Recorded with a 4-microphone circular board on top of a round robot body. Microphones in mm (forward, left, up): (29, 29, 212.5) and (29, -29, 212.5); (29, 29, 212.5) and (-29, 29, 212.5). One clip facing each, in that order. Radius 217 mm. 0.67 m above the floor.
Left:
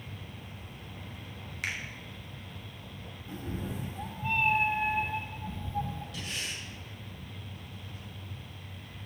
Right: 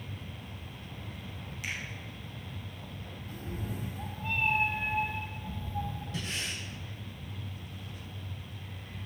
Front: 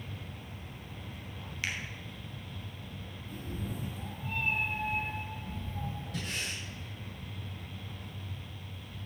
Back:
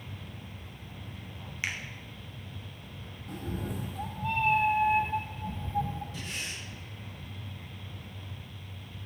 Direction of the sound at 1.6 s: 110° left.